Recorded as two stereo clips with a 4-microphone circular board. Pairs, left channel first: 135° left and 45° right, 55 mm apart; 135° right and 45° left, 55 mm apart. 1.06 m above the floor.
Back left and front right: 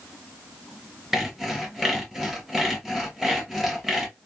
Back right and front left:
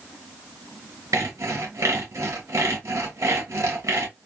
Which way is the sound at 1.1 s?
40° left.